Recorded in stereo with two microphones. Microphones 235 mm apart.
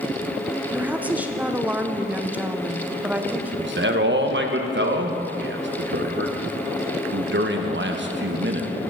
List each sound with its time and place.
0.7 s a woman speaking: 5° right (ahead or behind), 0.6 m
3.6 s a man speaking: 50° right (ahead or behind), 0.9 m